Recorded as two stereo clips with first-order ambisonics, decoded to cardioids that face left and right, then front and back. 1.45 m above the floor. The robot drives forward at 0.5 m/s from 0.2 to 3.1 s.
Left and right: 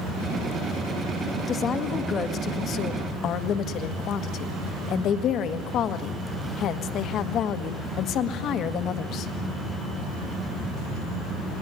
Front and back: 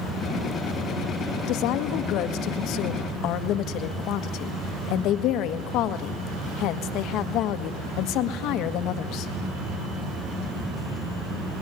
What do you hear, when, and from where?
1.5 s a woman speaking: 25° left, 2 m; by 9.3 s 40° left, 1.5 m